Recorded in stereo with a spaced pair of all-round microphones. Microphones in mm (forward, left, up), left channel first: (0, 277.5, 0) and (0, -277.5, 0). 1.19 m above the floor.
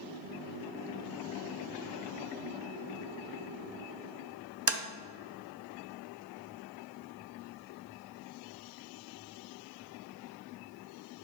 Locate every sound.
4.7 s tapping: 25° right (ahead or behind), 0.7 m